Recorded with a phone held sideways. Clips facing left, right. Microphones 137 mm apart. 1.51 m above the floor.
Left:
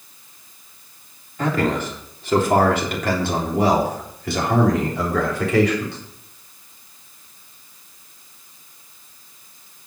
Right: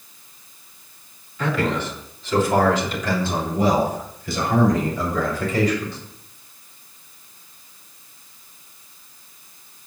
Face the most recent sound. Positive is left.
turn(degrees=85)